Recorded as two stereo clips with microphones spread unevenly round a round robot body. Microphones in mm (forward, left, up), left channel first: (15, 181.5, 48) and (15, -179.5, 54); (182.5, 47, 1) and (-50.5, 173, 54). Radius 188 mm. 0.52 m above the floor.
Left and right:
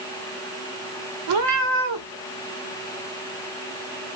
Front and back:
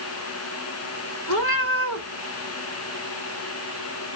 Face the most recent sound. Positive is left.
turn(degrees=-70)